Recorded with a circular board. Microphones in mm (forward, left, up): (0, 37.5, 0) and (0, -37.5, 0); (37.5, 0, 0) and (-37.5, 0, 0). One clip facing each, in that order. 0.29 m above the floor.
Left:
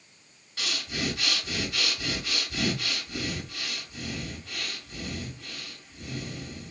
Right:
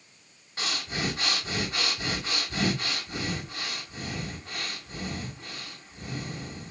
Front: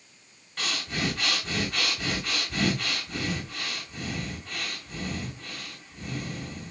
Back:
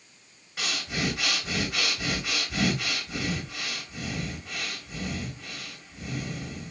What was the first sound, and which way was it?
Breathing, 105° right.